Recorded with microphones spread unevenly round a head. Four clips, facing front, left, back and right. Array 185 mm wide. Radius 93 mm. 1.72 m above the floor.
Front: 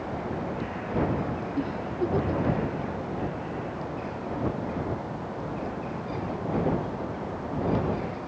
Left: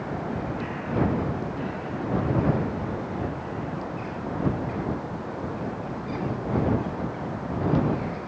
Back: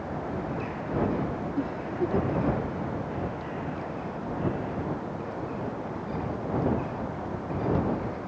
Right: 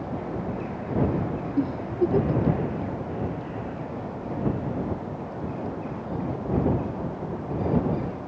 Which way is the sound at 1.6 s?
85° right.